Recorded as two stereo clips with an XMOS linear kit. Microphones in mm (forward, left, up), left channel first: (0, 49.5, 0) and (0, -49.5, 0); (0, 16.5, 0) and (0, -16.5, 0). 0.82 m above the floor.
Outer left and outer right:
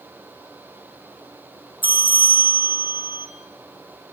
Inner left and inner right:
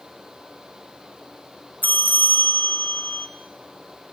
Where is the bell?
65° left (ahead or behind), 0.8 m.